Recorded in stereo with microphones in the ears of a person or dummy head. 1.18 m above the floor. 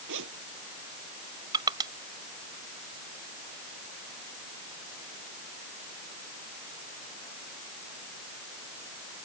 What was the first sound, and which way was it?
A zipper, 65° right (ahead or behind).